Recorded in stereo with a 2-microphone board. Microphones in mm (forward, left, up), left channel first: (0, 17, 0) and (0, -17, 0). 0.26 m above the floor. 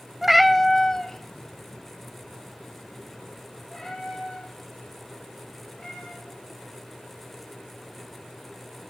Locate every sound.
0.2 s a cat meowing: 10° right (ahead or behind), 0.7 m; by 6.2 s 15° left (ahead or behind), 8.5 m